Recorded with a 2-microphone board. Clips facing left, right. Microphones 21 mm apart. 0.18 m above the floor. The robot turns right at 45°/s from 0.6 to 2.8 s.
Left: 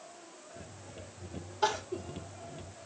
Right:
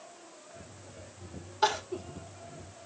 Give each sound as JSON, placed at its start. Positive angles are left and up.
{"t": 1.6, "sound": "crying", "side_deg": -25, "distance_m": 0.7}